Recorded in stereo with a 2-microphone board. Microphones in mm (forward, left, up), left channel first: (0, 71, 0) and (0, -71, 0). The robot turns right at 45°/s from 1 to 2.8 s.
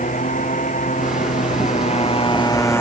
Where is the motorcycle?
80° left; by 2.8 s 165° left.